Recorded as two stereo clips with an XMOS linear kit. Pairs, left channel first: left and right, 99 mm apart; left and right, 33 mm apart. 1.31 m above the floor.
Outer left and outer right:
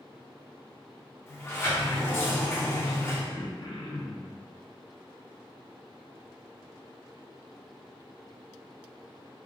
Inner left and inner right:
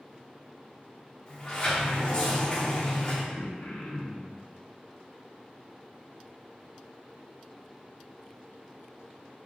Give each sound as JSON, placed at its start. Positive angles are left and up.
{"t": 1.3, "sound": "a sliding door", "side_deg": 25, "distance_m": 0.9}
{"t": 3.3, "sound": "throat clearing", "side_deg": 70, "distance_m": 0.8}